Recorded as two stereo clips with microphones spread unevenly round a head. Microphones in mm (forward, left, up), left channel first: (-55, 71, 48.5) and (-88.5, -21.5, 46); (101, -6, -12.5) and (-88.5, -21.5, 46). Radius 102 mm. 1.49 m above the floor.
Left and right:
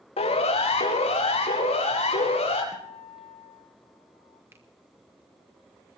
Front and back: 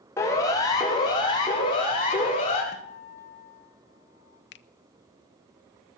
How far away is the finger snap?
About 0.7 m.